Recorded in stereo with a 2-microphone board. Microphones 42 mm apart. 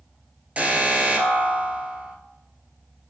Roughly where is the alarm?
Right.